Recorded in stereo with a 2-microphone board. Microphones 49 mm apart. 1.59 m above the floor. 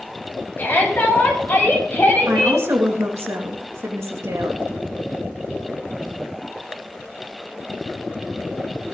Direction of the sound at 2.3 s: 70° right (ahead or behind).